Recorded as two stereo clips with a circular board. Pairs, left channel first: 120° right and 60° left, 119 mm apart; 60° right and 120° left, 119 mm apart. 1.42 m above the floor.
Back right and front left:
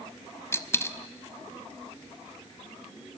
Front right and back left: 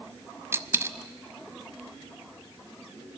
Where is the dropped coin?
Straight behind, 1.1 m.